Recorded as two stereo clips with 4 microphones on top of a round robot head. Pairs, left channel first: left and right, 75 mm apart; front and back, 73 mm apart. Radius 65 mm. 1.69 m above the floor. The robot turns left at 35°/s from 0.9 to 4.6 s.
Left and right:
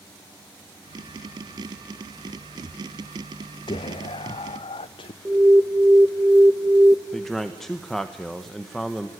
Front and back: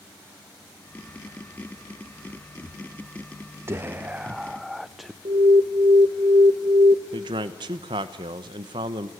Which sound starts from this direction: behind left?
Whispering, at 3.7 s.